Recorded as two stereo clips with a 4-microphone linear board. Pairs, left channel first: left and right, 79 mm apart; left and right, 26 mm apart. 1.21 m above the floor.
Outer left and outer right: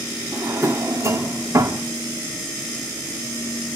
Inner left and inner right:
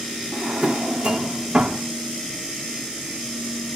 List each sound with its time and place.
0.3 s a drawer: 40° right (ahead or behind), 1.1 m